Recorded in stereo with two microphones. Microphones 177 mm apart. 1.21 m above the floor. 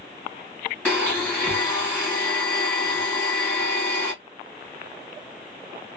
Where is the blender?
10° left (ahead or behind), 1.3 m.